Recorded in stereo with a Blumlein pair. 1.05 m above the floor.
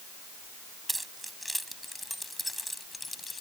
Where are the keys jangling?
5° right; by 3.4 s 10° left.